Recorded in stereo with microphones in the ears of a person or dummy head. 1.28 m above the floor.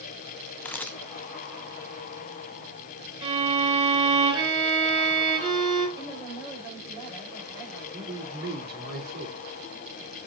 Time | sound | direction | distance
0.7 | a camera shutter | 5° left (ahead or behind) | 0.7 m
3.2 | a violin | 30° right (ahead or behind) | 4 m
6.0 | a woman speaking | 20° right (ahead or behind) | 5 m
7.9 | a man speaking | 50° right (ahead or behind) | 3.5 m